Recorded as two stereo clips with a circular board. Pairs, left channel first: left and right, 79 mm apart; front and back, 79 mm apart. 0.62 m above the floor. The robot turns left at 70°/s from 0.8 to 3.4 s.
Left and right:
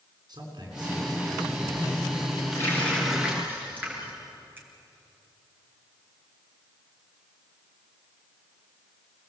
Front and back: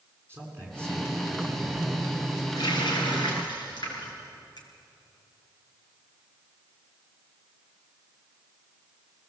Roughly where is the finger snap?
Ahead right.